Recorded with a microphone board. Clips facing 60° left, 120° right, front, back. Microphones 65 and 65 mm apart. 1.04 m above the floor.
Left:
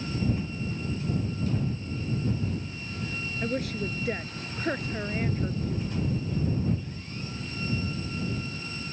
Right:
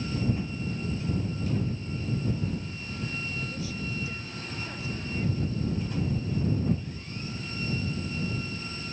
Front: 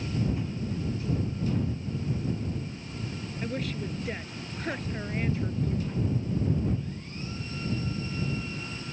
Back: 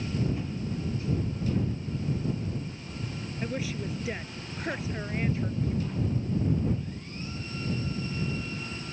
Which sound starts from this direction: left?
A woman speaking, at 3.4 s.